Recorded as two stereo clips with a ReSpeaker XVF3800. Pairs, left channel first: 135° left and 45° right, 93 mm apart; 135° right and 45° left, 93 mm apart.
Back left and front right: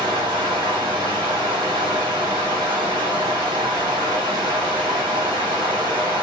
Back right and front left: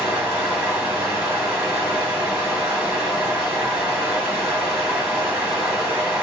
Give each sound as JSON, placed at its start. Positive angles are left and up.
{"t": 0.0, "sound": "running water", "azimuth_deg": -30, "distance_m": 1.8}